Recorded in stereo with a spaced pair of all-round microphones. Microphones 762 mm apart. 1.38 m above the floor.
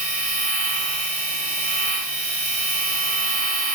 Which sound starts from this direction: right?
A machine running, at 0.0 s.